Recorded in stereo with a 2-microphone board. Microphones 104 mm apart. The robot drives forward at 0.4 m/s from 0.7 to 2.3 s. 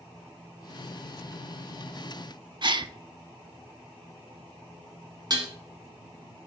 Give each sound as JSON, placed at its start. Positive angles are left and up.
{"t": 2.6, "sound": "a gasp", "side_deg": -50, "distance_m": 0.5}
{"t": 5.3, "sound": "dishes clattering", "side_deg": -40, "distance_m": 2.0}